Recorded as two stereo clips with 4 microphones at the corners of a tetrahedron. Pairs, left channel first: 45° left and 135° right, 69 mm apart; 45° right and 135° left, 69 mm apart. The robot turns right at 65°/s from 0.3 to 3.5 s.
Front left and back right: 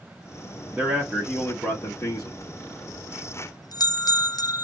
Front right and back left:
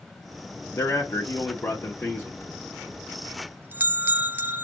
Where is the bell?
Straight ahead, 0.6 m; by 4.6 s 75° left, 0.6 m.